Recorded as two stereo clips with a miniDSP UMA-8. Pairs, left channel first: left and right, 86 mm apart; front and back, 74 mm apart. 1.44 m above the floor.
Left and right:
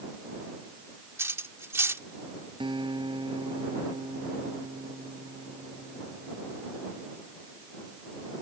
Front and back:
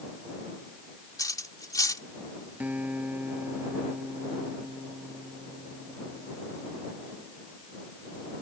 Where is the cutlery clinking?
30° right.